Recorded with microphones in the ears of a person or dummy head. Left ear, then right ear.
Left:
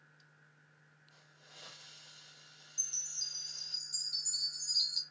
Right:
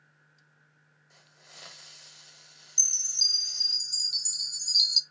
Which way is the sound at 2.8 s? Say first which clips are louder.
Right 13 dB; 35° right (ahead or behind).